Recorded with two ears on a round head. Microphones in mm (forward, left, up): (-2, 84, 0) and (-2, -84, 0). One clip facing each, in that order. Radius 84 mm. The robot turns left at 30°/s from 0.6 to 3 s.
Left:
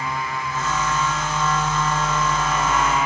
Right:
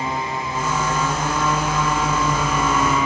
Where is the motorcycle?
20° right; by 3.0 s 95° right.